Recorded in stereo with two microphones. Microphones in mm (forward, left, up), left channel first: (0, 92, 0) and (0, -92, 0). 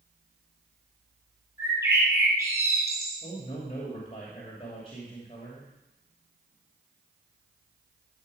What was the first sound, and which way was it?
A bird, 15° right (ahead or behind).